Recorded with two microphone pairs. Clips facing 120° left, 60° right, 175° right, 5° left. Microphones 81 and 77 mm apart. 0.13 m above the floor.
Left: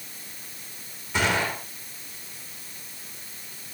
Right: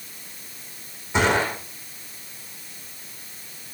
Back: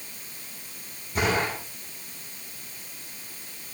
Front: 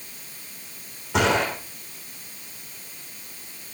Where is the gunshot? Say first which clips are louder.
Right 4 dB, front 4 dB; 10° left, 5.5 m.